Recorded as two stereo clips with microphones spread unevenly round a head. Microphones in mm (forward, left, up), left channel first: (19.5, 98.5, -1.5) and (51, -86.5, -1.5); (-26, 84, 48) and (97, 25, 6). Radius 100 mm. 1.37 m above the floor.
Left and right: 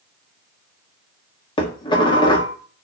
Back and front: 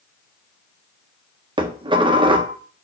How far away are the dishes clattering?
About 1.5 m.